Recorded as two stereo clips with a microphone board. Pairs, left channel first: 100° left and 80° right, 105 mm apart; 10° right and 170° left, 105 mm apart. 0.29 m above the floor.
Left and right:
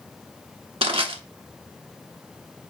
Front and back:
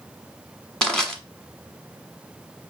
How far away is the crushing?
About 1.4 m.